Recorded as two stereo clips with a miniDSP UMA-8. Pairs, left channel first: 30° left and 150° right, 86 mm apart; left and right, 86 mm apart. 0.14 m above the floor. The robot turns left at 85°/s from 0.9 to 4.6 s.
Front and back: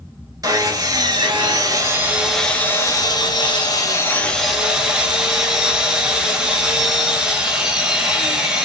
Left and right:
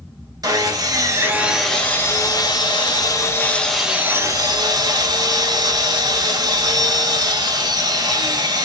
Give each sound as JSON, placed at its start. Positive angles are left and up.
{"t": 0.4, "sound": "sawing", "azimuth_deg": -115, "distance_m": 0.8}